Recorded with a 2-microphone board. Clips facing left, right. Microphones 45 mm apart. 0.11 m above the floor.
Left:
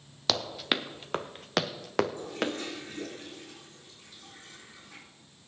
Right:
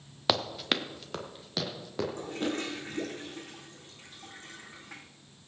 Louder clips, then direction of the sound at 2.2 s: Even; 55° right (ahead or behind).